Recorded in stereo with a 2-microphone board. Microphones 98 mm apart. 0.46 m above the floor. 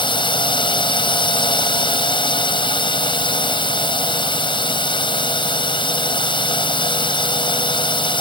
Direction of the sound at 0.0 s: 55° left (ahead or behind).